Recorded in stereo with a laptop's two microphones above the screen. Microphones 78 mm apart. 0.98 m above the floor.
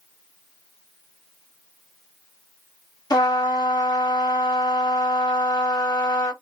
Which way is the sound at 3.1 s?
50° left (ahead or behind).